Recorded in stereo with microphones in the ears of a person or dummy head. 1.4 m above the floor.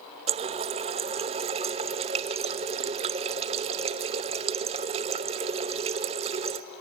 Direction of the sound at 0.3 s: 30° right (ahead or behind).